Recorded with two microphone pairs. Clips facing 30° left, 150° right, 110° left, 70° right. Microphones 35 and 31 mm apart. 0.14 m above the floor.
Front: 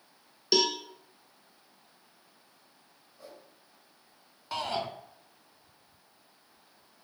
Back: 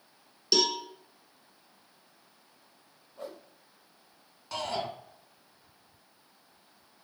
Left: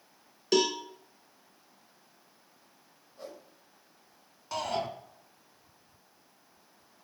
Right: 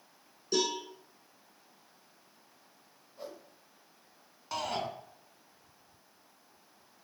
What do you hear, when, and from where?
0.5 s a cowbell: 105° left, 1.2 m
3.2 s a whoosh: 155° right, 1.7 m
4.5 s a shout: straight ahead, 1.2 m